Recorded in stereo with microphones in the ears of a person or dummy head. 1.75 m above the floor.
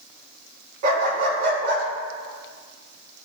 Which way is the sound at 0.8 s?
50° right (ahead or behind).